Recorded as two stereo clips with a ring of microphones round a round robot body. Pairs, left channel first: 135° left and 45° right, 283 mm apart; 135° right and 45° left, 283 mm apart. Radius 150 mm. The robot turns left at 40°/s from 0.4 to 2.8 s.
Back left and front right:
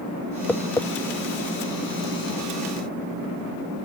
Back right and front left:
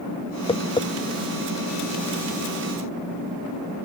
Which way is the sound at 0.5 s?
150° right.